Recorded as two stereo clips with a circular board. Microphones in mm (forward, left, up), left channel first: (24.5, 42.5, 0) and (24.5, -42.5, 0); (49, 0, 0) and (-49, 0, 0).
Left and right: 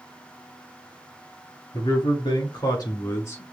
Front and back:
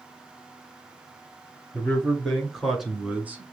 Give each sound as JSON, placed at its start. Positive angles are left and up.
{"t": 1.7, "sound": "a man speaking", "azimuth_deg": 80, "distance_m": 2.5}